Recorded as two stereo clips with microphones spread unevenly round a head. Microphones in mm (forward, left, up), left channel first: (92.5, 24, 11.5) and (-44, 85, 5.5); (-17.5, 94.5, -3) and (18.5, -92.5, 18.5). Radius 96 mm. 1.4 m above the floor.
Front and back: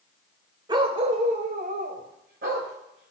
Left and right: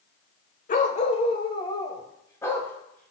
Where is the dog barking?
120° left, 1.2 m; by 3.1 s 175° right, 2.5 m.